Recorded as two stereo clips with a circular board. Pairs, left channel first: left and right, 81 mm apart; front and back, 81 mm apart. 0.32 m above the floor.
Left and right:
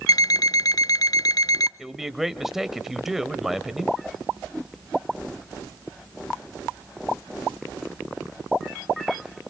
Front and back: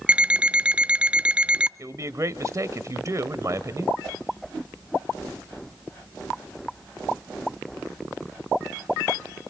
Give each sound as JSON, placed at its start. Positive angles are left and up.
{"t": 0.1, "sound": "an alarm clock", "azimuth_deg": 110, "distance_m": 0.5}
{"t": 1.8, "sound": "a man speaking", "azimuth_deg": -170, "distance_m": 1.1}